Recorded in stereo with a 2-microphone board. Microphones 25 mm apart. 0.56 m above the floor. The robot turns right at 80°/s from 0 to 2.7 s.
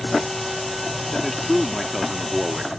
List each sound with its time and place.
1.1 s a man speaking: 15° left (ahead or behind); by 2.8 s 25° right (ahead or behind)